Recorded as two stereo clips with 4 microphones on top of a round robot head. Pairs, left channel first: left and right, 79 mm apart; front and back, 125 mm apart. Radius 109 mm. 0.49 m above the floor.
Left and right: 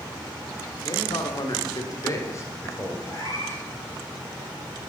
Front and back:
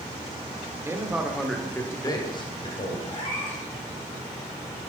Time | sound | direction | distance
0.8 | a man speaking | 115° left | 2 m
3.1 | a cat meowing | 50° left | 5.5 m